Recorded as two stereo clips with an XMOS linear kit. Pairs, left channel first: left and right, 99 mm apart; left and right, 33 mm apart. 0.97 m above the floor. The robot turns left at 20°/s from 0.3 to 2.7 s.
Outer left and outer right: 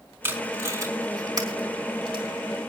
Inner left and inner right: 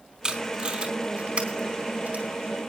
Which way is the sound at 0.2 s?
20° right (ahead or behind).